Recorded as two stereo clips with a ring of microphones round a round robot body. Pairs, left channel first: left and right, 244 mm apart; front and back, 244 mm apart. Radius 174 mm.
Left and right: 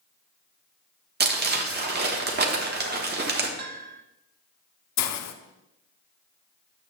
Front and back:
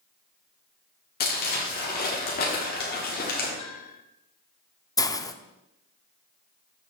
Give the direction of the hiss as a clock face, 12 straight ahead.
9 o'clock.